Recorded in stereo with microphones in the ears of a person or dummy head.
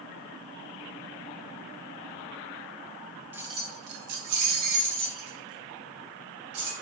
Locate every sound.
3.3 s keys jangling: 10° right (ahead or behind), 0.5 m; by 6.7 s 85° right, 1.8 m